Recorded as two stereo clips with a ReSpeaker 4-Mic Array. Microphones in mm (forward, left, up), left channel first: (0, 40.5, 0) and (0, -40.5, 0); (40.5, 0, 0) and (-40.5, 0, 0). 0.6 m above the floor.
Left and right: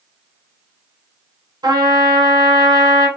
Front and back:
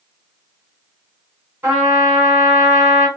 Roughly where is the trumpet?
Behind right.